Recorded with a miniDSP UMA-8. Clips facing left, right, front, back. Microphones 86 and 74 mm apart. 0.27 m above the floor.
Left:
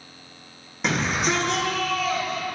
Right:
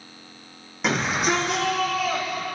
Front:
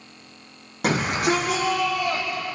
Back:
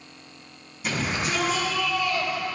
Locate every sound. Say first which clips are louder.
0.8 s a shout: right 1 dB, front 6 dB; straight ahead, 9.5 m; by 2.4 s 5° right, 11.5 m